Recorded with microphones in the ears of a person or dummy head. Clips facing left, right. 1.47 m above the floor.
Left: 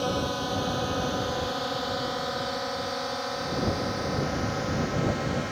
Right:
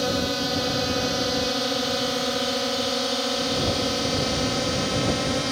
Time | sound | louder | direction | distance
0.0 | a drone | right 3 dB | 30° right (ahead or behind) | ?